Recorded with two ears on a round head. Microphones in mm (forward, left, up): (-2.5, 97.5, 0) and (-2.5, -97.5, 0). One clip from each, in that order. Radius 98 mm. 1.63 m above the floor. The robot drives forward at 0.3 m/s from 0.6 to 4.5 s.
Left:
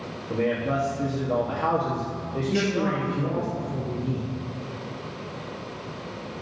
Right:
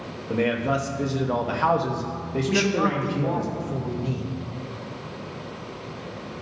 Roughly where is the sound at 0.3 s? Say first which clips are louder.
Right 2 dB; right.